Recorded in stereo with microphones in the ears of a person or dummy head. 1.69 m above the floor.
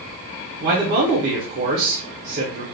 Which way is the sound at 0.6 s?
55° right (ahead or behind).